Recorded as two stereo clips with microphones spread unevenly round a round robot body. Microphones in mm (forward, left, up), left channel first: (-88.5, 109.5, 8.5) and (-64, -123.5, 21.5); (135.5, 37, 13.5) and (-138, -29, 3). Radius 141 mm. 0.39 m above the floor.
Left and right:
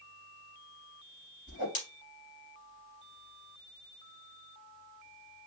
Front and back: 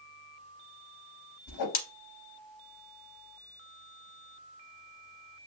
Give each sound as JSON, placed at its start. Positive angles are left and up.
{"t": 1.5, "sound": "a whoosh", "azimuth_deg": 40, "distance_m": 0.7}